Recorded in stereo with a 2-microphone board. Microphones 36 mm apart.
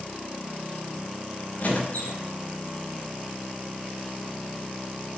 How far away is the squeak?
About 6 m.